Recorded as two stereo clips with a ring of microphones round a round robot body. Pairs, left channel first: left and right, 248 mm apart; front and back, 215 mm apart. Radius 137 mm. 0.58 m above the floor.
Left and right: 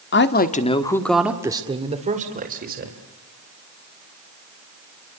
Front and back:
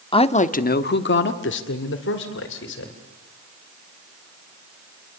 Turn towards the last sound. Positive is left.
turn(degrees=-40)